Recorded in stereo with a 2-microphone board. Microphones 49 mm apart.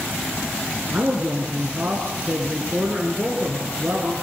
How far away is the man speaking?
About 3 m.